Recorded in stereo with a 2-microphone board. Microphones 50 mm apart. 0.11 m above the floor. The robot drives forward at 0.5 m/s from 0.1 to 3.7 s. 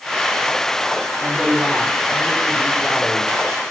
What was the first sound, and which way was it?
A woman speaking, 5° right (ahead or behind).